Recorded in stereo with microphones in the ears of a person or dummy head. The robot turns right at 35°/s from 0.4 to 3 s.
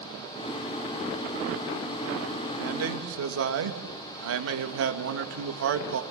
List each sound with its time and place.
2.6 s a man speaking: 80° right, 1.9 m; by 6.0 s 85° right, 1.9 m